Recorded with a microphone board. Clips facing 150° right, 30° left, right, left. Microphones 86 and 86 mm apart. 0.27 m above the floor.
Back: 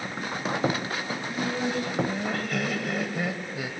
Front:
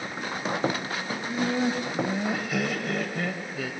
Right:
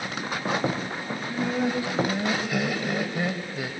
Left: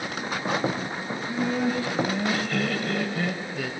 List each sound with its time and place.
1.1 s laughter: 5° right, 1.9 m; by 3.7 s 110° right, 1.6 m